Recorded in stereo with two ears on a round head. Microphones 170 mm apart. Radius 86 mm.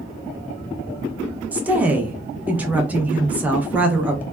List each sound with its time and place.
1.5 s a woman speaking: 10° right (ahead or behind), 0.5 m